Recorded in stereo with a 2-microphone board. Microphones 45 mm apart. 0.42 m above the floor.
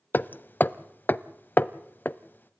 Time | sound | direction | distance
0.1 | hammering | 45° left (ahead or behind) | 0.6 m